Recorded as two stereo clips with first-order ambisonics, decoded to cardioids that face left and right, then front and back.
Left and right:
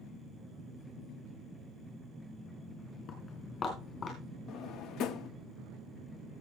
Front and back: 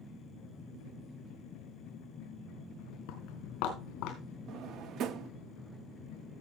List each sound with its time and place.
3.1 s footsteps: 25° left, 3.5 m; by 4.2 s 30° left, 4 m
4.5 s a drawer: 135° left, 0.6 m